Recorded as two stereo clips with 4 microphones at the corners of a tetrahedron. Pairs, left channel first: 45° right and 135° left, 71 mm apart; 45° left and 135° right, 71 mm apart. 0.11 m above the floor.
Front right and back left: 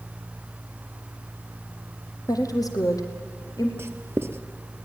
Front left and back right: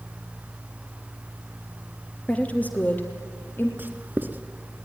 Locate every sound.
2.3 s a woman speaking: 25° right, 2.5 m; by 3.7 s 10° right, 3.5 m
3.8 s writing: 175° left, 1.1 m